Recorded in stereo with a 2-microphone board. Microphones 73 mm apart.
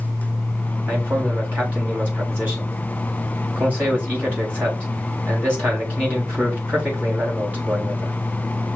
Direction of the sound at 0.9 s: 20° right (ahead or behind).